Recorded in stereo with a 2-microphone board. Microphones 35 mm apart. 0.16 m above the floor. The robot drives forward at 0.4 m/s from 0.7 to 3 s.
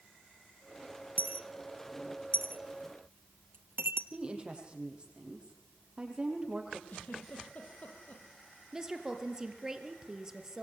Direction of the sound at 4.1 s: 30° right (ahead or behind).